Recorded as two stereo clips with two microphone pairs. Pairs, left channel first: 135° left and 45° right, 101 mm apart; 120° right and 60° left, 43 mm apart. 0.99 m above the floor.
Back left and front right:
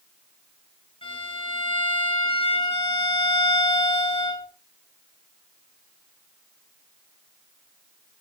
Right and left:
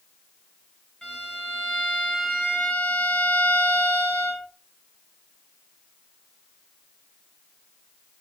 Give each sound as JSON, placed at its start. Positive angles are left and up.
{"t": 1.0, "sound": "a violin", "azimuth_deg": 165, "distance_m": 3.5}